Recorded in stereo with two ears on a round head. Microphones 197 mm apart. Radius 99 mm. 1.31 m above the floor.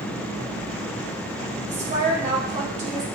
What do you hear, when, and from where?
1.7 s a woman speaking: 35° right (ahead or behind), 1.9 m